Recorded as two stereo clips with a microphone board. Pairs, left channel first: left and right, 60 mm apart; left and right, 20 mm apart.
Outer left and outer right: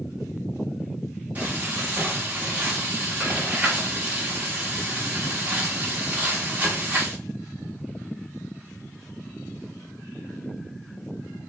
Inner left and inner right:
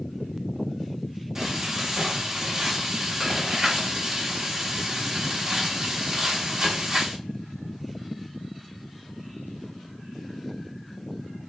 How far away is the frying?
About 1.3 m.